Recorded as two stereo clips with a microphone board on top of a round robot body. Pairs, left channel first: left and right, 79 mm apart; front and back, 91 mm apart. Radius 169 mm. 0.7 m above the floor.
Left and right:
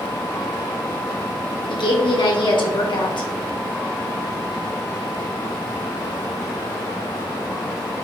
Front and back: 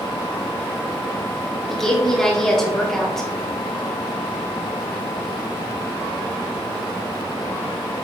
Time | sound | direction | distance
1.7 | a woman speaking | 85° left | 3 m